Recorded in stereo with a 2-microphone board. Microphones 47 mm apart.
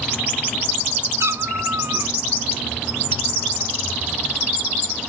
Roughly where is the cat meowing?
Right.